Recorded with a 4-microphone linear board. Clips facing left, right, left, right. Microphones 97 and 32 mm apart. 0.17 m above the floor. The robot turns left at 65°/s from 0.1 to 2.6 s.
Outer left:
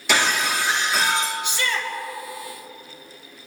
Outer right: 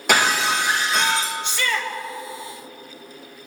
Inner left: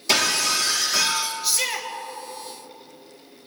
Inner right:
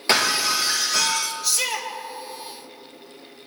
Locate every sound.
0.1 s breaking glass: 125° right, 2.5 m; by 1.3 s 155° left, 2.5 m
1.4 s a shout: 10° left (ahead or behind), 3 m; by 1.9 s 35° left (ahead or behind), 3 m